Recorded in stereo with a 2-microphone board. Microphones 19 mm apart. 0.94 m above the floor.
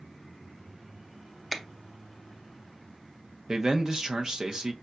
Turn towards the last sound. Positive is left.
turn(degrees=-40)  # may be behind; listen again after turning